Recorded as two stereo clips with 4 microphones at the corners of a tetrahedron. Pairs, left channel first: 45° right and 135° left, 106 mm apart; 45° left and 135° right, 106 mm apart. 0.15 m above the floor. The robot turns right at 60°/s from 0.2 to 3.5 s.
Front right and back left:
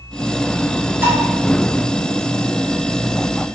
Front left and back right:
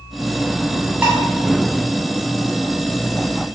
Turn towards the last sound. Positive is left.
turn(degrees=-50)